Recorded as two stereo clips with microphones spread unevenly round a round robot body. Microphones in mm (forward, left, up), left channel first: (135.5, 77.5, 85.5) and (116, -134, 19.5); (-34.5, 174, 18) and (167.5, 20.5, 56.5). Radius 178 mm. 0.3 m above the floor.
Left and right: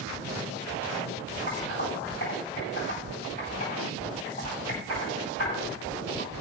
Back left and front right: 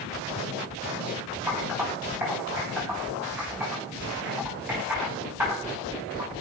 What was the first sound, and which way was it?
Typing on a keyboard, 45° left.